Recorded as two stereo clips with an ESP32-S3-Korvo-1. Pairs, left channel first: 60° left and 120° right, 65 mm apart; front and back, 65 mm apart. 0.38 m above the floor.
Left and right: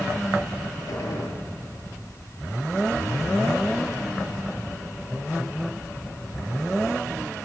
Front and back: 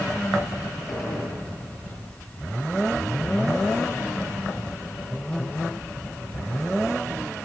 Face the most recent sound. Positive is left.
turn(degrees=95)